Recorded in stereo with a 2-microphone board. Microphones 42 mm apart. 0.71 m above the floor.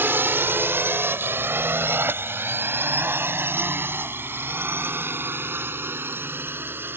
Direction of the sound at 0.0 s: 65° right (ahead or behind).